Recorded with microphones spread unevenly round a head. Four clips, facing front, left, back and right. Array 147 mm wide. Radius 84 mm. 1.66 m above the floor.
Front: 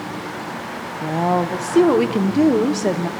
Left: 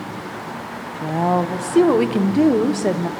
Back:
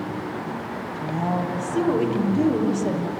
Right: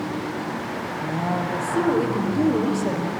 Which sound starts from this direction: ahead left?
A woman speaking, at 1.0 s.